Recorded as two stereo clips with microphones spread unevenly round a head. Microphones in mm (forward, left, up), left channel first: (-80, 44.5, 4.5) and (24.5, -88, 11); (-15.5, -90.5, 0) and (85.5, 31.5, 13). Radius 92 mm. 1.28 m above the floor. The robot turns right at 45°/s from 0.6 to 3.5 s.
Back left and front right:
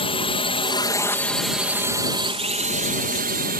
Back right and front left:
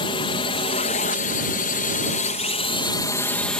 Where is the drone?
175° left; by 3.6 s 45° right.